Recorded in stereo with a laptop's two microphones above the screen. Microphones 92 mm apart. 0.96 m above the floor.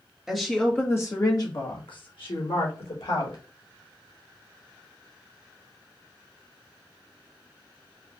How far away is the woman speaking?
About 1.1 m.